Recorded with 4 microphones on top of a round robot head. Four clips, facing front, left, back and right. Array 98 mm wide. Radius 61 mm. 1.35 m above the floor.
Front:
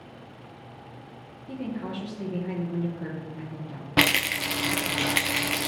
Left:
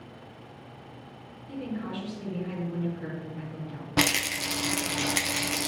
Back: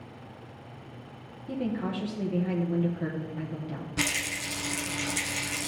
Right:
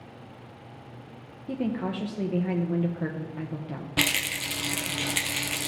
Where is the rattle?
20° left, 0.5 m.